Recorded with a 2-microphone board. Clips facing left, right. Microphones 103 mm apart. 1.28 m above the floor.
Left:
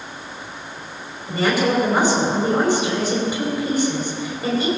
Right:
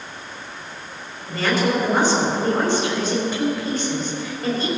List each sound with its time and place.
1.3 s a woman speaking: 10° left (ahead or behind), 4 m